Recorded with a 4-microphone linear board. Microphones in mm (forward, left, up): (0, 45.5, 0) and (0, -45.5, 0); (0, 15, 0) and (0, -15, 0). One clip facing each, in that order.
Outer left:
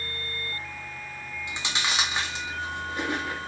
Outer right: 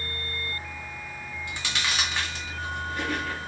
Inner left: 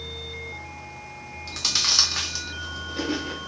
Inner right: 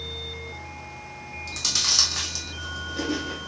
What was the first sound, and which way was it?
Chewing, 20° left (ahead or behind).